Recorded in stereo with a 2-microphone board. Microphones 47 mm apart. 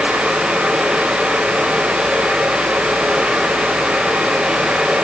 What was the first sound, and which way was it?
Only background noise.